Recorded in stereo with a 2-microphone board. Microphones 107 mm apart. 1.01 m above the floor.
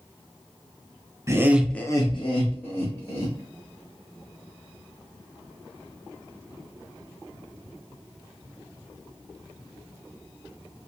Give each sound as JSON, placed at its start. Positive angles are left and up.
{"t": 1.3, "sound": "laughter", "side_deg": -30, "distance_m": 0.8}